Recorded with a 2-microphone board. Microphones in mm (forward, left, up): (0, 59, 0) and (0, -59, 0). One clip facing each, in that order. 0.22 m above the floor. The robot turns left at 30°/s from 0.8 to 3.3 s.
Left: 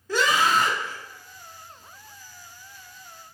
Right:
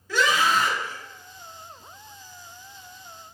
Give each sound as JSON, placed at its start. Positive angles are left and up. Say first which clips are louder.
{"t": 0.1, "sound": "a scream", "louder": "even", "side_deg": 40, "distance_m": 1.8}